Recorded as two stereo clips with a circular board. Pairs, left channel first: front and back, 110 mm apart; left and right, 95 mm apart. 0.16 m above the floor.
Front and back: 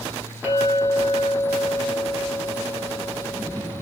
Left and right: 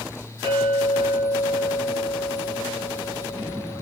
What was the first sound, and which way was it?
A clink, 105° right.